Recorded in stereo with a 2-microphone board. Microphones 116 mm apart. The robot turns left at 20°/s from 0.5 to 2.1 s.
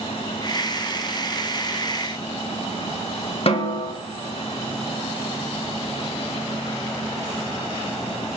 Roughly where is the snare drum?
Left.